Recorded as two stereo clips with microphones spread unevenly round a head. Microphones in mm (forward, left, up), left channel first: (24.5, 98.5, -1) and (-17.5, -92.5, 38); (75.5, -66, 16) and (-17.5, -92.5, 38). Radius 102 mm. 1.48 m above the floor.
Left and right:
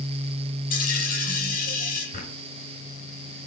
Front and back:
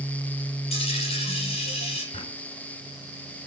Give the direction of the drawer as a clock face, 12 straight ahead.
11 o'clock.